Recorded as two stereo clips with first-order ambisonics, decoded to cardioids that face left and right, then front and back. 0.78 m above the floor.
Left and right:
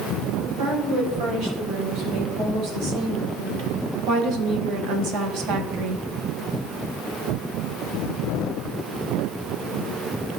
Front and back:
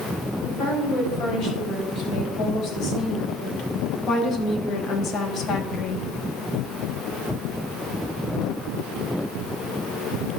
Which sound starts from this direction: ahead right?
A woman speaking, at 0.4 s.